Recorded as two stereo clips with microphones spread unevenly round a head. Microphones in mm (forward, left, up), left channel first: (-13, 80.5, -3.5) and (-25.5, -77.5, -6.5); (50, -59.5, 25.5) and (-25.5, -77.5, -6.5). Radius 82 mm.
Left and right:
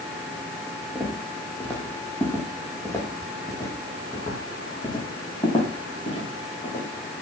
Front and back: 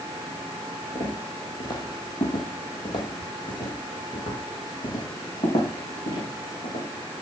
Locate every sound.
0.9 s footsteps: straight ahead, 4.5 m; by 6.8 s 30° left, 6 m